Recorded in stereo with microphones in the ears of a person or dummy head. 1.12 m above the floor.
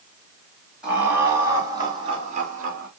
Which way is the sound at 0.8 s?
5° right (ahead or behind).